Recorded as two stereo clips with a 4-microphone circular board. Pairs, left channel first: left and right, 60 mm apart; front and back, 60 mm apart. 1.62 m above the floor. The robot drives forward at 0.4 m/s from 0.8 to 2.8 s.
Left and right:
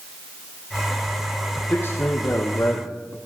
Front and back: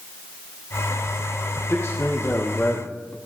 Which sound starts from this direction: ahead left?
A man speaking, at 1.7 s.